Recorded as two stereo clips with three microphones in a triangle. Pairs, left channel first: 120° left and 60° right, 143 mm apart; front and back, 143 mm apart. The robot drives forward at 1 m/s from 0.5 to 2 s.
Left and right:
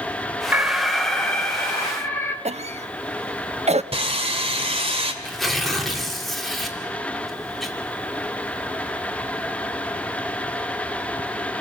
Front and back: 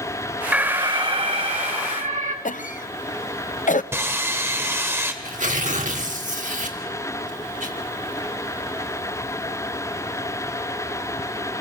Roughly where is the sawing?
Right.